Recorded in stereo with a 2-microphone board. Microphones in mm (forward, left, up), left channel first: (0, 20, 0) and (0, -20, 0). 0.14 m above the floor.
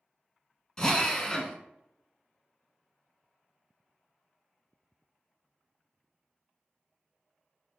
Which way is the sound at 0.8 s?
20° left (ahead or behind).